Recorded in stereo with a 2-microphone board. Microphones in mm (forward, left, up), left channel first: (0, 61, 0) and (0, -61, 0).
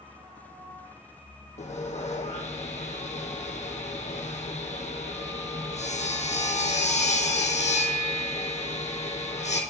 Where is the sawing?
70° left (ahead or behind), 1.5 m.